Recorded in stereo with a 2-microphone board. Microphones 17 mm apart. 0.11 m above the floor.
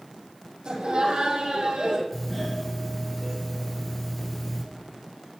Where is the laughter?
70° right (ahead or behind), 4 m; by 2.0 s 60° right (ahead or behind), 3 m.